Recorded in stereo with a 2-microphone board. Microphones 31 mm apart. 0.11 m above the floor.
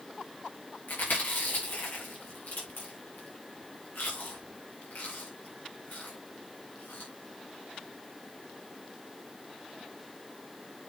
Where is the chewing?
85° left, 8 m.